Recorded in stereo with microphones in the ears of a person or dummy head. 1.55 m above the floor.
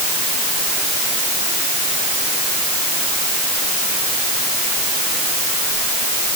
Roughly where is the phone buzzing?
No phone buzzing in this recording.